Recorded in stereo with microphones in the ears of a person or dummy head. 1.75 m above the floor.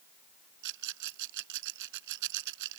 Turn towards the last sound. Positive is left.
turn(degrees=-65)  # may be behind; listen again after turning